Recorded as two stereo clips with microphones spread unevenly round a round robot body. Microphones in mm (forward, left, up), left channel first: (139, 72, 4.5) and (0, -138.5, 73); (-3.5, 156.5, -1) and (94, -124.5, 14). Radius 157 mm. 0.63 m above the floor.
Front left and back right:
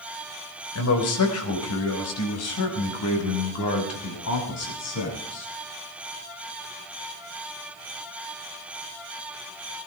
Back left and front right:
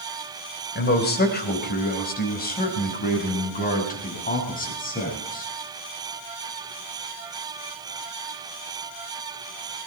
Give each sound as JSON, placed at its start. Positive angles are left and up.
{"t": 0.8, "sound": "a man speaking", "azimuth_deg": 55, "distance_m": 3.0}